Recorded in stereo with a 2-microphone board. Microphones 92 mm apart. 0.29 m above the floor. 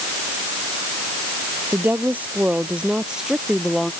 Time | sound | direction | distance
1.7 | a woman speaking | 20° right (ahead or behind) | ?